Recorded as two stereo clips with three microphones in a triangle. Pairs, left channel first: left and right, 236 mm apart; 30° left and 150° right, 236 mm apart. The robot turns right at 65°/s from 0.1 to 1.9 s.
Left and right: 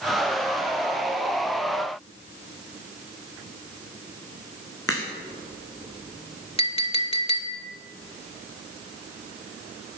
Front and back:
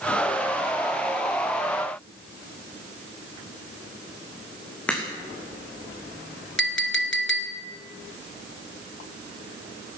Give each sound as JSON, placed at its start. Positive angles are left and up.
{"t": 4.9, "sound": "a crack", "azimuth_deg": 115, "distance_m": 2.5}
{"t": 6.6, "sound": "a clink", "azimuth_deg": 35, "distance_m": 1.2}